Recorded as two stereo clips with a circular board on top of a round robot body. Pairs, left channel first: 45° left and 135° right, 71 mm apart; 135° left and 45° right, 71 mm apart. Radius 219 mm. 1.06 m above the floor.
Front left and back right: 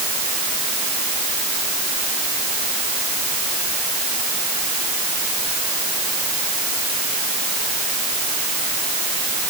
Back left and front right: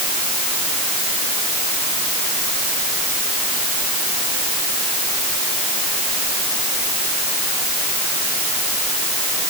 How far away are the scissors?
I don't hear scissors.